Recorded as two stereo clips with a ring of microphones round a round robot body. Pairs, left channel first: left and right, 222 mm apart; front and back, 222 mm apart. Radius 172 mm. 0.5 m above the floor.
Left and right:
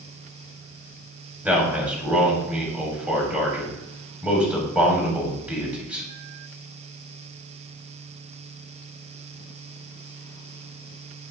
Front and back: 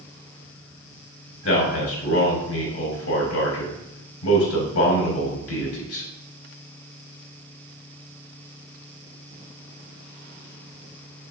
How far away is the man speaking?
About 3.5 m.